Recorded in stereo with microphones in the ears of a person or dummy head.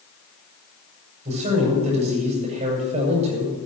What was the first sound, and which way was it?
A man speaking, 35° right (ahead or behind).